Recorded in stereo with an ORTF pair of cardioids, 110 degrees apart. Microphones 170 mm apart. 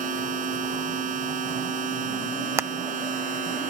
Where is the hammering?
15° right.